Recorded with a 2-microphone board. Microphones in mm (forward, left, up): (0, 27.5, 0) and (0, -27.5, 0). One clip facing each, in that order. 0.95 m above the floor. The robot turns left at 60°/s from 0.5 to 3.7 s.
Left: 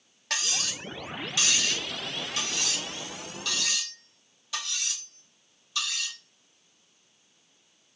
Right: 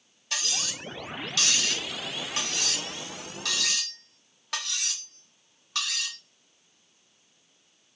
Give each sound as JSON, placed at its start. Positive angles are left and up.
{"t": 0.3, "sound": "cutlery clinking", "side_deg": 70, "distance_m": 0.8}